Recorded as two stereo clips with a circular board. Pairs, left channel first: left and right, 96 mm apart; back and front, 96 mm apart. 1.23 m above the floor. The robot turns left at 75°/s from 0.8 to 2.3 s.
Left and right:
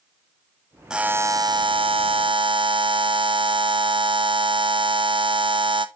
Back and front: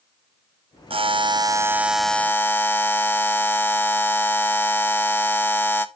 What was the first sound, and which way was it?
A buzzer, 5° right.